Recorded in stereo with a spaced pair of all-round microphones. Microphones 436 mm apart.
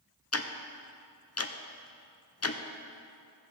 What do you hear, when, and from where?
0.3 s ticking: 35° left (ahead or behind), 0.5 m